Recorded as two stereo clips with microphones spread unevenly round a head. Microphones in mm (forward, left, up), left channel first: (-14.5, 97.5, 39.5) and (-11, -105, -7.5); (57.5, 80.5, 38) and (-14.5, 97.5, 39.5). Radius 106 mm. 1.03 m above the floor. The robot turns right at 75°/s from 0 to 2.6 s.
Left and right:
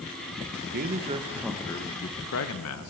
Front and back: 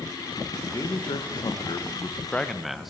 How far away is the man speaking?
About 0.7 m.